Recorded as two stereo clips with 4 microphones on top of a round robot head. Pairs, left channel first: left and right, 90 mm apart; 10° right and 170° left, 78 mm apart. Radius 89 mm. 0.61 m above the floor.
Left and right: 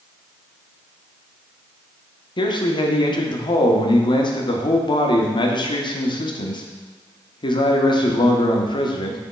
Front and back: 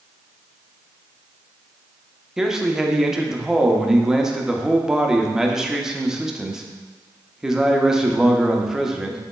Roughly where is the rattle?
No rattle in this recording.